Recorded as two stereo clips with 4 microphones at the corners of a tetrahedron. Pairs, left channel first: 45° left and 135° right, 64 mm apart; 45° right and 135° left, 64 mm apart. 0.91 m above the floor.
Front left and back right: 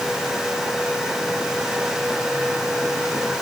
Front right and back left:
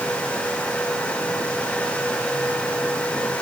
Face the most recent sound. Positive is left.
No sound to turn to.